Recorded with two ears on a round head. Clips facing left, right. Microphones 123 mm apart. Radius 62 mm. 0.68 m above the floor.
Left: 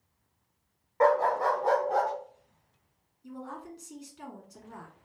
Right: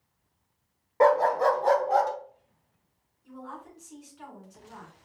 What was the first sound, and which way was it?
A dog barking, 35° right (ahead or behind).